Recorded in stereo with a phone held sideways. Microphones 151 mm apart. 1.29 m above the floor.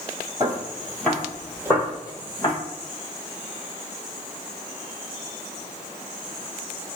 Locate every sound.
0.4 s footsteps: 15° right (ahead or behind), 1.3 m; by 2.5 s 35° left (ahead or behind), 2.0 m